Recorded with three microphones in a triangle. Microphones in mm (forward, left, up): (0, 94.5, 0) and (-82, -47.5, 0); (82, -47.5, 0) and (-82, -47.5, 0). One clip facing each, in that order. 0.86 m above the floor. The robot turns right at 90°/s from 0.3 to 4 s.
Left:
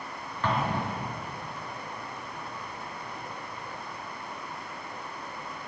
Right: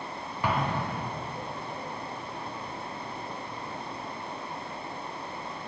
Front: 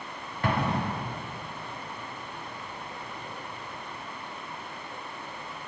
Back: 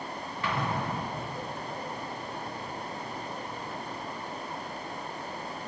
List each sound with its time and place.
0.4 s an explosion: 40° right, 1.0 m; by 1.1 s 20° left, 1.0 m